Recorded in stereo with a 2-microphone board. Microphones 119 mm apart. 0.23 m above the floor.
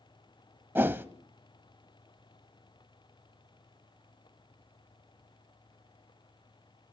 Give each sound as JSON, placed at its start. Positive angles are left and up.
{"t": 0.8, "sound": "a whoosh", "side_deg": -20, "distance_m": 0.7}